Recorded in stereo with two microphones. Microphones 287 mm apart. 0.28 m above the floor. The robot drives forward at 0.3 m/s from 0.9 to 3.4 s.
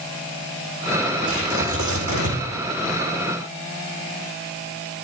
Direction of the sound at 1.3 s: 80° right.